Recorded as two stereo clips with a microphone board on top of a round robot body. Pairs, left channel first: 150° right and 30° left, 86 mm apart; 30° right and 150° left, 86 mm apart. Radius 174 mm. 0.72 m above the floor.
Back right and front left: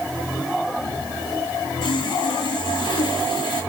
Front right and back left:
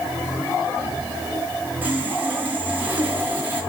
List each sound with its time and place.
1.8 s sawing: 140° right, 4.5 m